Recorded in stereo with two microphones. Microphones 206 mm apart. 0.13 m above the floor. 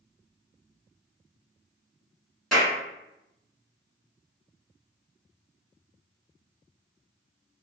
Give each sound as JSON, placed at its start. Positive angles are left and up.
{"t": 2.5, "sound": "a clap", "side_deg": 0, "distance_m": 1.4}